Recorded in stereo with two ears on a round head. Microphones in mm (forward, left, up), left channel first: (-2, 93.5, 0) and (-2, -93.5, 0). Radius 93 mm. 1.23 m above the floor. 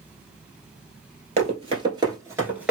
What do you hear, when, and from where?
1.4 s running footsteps: 35° right (ahead or behind), 1.4 m; by 2.7 s 5° right (ahead or behind), 1.2 m